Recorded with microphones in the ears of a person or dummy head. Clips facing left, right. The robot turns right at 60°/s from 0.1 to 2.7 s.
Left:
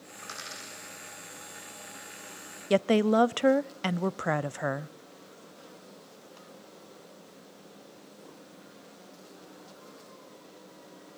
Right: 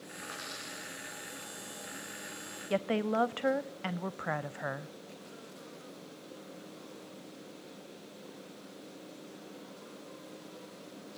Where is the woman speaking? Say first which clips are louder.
Left 8 dB; 55° left (ahead or behind), 0.5 m.